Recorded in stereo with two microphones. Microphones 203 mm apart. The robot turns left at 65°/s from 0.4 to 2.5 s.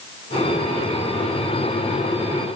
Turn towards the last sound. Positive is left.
No sound to turn to.